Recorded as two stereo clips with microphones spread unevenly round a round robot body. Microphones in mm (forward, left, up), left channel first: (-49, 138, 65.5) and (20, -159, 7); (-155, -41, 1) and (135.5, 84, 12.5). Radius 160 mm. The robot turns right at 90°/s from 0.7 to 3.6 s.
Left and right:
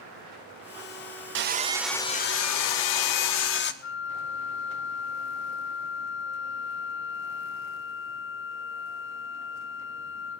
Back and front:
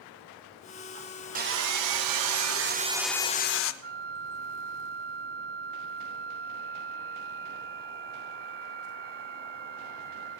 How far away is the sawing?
About 0.7 m.